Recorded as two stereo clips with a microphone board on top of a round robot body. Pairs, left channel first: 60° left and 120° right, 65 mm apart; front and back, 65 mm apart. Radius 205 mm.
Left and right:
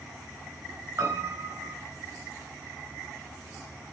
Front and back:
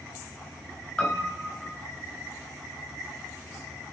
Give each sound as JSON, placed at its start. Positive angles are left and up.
{"t": 1.0, "sound": "a piano", "azimuth_deg": -70, "distance_m": 3.0}